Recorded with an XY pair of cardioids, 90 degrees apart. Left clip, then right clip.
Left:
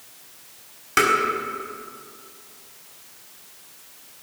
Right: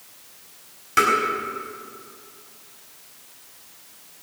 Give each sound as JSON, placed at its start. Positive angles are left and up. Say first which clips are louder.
{"t": 1.0, "sound": "tapping", "louder": "even", "azimuth_deg": 30, "distance_m": 4.5}